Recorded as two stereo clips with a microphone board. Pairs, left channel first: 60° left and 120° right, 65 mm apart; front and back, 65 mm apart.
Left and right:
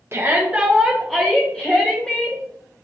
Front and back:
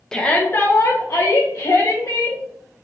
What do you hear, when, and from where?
0.1 s a shout: 80° right, 0.6 m; by 2.4 s 10° right, 1.5 m